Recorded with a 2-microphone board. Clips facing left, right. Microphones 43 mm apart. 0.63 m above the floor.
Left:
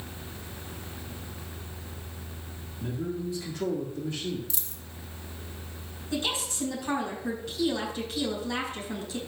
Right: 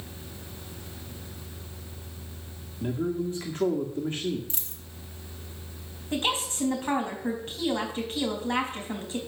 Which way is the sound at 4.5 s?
40° right (ahead or behind).